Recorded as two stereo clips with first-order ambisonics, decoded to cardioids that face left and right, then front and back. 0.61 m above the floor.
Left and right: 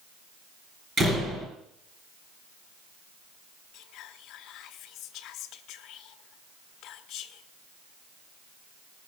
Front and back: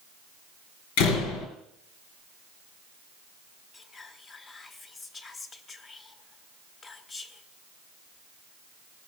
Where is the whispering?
65° left, 0.9 m.